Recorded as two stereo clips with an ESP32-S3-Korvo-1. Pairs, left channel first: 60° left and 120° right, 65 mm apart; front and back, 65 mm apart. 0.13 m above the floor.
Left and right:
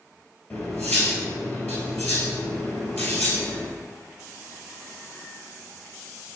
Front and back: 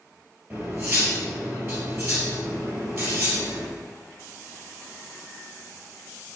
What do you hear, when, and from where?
0.5 s cutlery clinking: 115° left, 1.8 m